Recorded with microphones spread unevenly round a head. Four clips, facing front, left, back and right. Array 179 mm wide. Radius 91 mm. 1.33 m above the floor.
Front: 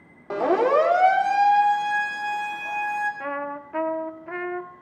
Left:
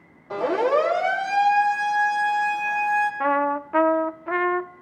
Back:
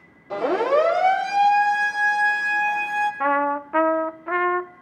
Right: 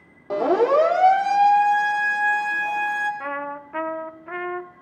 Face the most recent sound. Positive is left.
turn(degrees=140)